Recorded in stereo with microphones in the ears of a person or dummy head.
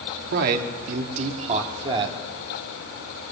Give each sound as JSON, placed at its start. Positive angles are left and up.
{"t": 0.3, "sound": "a man speaking", "side_deg": -55, "distance_m": 3.0}